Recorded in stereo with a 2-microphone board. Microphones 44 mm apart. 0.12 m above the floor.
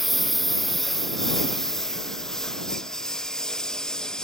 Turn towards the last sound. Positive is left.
turn(degrees=15)  # may be behind; listen again after turning